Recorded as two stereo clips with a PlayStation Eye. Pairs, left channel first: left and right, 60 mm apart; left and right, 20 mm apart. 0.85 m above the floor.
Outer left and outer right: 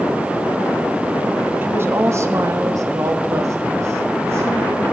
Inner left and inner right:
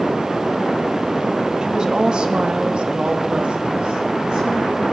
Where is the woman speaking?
35° right (ahead or behind), 1.5 m; by 4.8 s 45° right (ahead or behind), 3 m.